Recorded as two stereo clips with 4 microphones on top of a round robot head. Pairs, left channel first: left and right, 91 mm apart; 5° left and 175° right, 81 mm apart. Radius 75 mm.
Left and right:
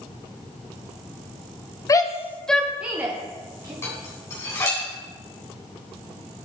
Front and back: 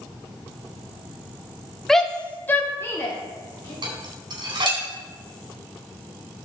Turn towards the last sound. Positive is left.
turn(degrees=155)